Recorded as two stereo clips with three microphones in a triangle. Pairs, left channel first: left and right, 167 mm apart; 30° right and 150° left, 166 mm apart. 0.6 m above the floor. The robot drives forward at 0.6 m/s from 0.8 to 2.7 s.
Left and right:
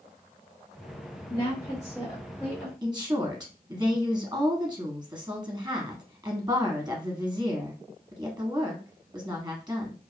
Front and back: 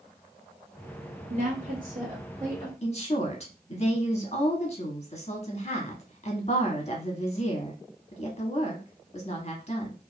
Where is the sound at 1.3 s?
145° left, 0.9 m; by 2.7 s 165° left, 1.5 m.